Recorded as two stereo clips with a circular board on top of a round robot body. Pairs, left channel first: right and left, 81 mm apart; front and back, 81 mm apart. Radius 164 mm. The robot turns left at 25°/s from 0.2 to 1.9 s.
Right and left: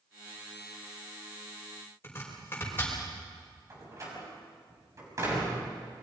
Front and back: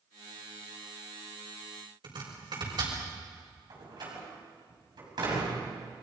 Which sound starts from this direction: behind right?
Chopping, at 2.0 s.